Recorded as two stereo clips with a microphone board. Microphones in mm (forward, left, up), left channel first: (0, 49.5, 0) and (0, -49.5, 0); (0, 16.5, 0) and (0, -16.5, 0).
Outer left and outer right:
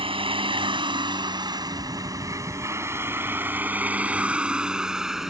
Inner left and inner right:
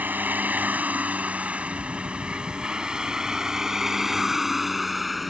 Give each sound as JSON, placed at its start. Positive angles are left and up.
{"t": 0.0, "sound": "a vehicle", "side_deg": -65}